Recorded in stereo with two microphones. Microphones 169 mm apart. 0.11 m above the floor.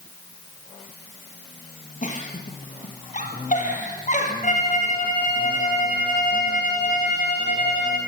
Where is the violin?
50° left (ahead or behind), 4.5 m.